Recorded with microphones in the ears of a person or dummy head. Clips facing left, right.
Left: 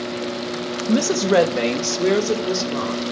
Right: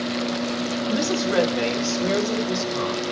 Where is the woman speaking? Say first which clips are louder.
Left 7 dB; 60° left (ahead or behind), 1.2 m; by 3.0 s 90° left, 2.5 m.